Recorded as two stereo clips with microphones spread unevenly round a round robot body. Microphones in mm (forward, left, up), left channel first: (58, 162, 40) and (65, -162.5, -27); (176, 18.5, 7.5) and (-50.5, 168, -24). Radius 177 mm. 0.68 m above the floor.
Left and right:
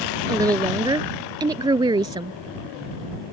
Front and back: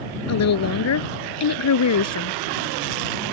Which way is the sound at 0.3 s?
10° right.